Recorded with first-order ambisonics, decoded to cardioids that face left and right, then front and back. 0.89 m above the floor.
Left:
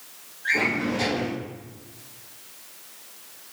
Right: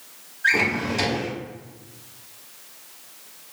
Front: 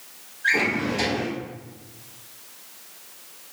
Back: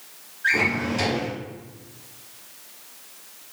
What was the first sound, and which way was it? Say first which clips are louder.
A drawer: right 3 dB, even; 100° right.